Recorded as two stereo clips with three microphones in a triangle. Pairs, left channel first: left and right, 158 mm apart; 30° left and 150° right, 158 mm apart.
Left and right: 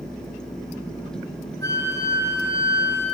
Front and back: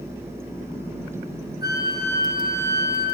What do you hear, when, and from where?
1.6 s a flute: 20° left, 4 m